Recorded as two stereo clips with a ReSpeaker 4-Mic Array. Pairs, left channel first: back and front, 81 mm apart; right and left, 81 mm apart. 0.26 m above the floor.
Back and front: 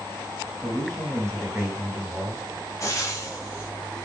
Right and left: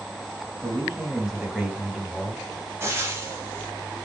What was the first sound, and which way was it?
A man speaking, 155° left.